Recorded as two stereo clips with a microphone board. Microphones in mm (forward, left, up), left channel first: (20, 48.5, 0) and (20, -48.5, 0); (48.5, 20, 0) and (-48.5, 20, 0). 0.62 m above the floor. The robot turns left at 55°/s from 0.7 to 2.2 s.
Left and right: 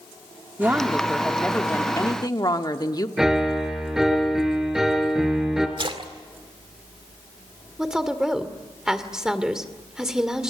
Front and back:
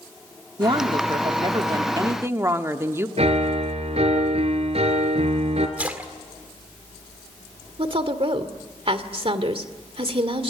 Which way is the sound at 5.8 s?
105° right.